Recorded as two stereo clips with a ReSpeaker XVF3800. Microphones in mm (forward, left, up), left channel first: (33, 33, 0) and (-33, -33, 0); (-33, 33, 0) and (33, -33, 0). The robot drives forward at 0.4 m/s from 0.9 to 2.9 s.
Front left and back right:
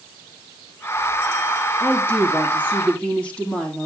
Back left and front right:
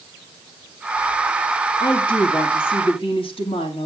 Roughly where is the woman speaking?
Left.